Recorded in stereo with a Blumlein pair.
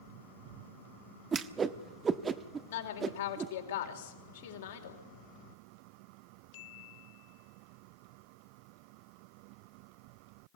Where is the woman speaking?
60° left, 4 m.